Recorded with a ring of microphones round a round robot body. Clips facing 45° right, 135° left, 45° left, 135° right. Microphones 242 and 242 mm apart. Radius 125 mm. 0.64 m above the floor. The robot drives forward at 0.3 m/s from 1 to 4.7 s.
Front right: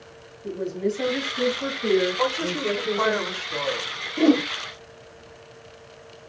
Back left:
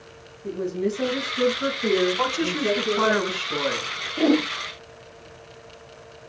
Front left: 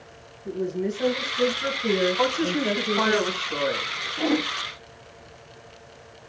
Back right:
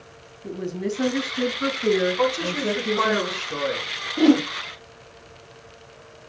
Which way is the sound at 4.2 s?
125° right.